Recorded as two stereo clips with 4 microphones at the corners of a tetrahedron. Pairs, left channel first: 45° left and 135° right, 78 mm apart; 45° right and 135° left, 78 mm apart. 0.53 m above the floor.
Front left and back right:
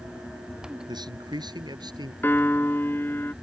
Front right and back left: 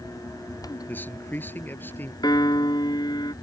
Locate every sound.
0.9 s a man speaking: 110° right
2.2 s a piano: 20° right